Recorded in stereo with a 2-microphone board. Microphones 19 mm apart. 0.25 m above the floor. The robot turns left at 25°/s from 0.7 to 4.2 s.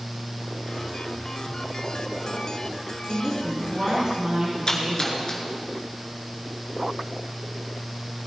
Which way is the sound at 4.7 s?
45° left (ahead or behind).